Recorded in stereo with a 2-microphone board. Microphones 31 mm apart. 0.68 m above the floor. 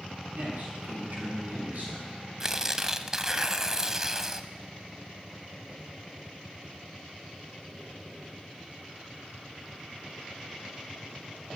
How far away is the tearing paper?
About 0.7 m.